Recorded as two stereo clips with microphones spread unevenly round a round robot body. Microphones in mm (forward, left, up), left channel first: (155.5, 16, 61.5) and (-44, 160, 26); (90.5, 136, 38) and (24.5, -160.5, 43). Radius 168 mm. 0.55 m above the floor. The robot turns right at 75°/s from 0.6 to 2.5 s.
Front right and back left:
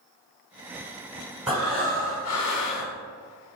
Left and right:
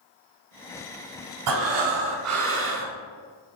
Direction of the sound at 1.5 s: 130° right.